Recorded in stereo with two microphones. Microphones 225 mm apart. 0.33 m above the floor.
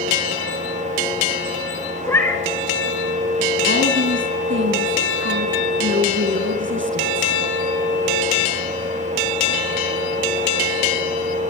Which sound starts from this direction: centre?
A cat meowing, at 2.0 s.